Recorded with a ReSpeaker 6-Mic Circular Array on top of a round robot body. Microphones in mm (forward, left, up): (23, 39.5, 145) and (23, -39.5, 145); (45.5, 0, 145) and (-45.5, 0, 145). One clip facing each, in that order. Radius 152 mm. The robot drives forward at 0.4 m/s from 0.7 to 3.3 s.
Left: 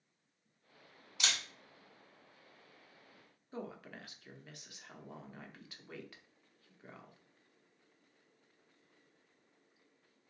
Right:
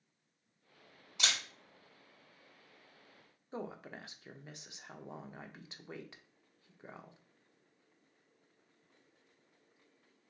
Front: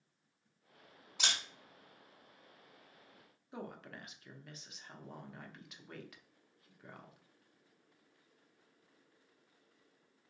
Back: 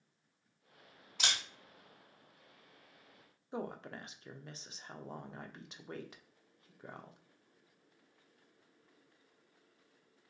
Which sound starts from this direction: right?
A camera shutter, at 1.2 s.